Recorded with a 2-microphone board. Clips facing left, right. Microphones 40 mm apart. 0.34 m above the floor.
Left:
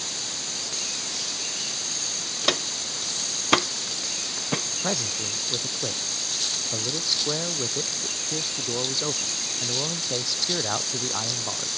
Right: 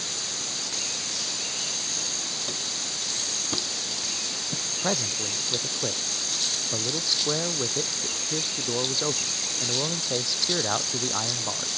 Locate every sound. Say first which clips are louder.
2.4 s footsteps: left 7 dB; 80° left; by 4.6 s 70° left (ahead or behind)
4.8 s a man speaking: right 1 dB; centre (ahead or behind)